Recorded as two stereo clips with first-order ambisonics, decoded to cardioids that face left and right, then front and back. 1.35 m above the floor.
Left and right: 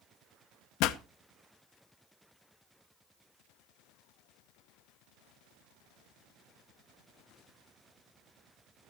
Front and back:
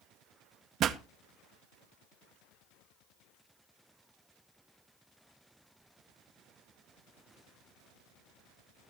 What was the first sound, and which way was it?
A pop, 125° left.